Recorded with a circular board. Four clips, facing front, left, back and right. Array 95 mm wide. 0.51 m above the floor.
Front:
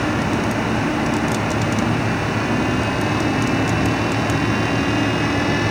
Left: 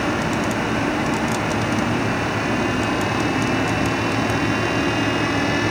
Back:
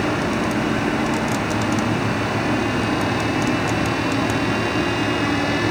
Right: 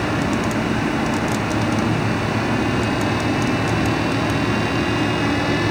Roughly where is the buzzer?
No buzzer in this recording.